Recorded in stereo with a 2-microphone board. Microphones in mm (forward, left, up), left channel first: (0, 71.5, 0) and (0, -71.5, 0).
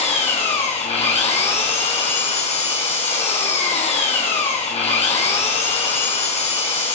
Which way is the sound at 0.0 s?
45° left (ahead or behind).